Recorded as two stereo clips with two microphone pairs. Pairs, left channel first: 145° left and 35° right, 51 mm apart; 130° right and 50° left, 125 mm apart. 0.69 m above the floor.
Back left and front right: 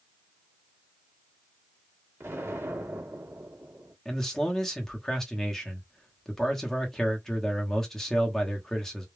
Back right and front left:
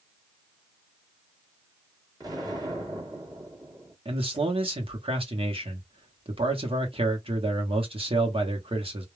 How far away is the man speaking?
About 0.9 m.